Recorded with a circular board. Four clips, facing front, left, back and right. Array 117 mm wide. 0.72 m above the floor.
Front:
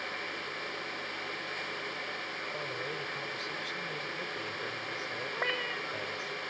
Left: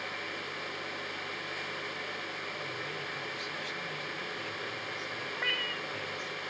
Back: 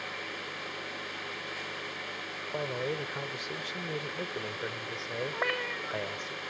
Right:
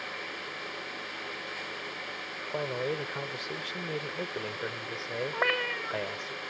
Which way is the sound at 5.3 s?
105° right.